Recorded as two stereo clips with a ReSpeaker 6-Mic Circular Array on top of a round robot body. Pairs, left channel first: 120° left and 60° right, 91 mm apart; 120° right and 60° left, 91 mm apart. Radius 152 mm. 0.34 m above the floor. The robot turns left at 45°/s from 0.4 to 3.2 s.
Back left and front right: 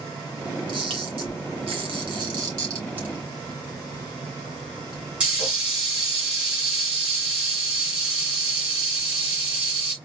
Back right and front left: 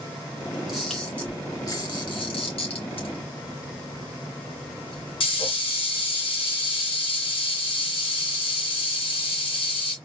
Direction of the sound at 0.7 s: 25° right.